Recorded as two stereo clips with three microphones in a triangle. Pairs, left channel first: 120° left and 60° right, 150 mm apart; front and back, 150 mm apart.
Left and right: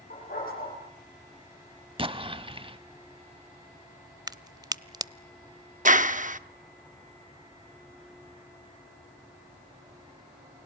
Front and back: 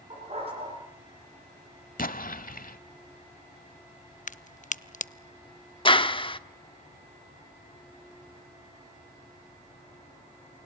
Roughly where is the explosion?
Ahead.